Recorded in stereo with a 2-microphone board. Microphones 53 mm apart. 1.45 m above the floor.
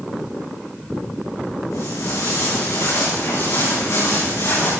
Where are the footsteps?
80° left, 7.5 m; by 4.7 s 70° left (ahead or behind), 10.5 m.